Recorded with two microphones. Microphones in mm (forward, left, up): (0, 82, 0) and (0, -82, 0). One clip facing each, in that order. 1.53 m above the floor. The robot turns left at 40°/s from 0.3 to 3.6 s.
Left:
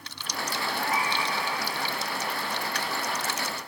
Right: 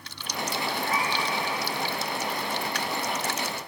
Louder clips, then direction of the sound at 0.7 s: Left 1 dB; 60° left (ahead or behind).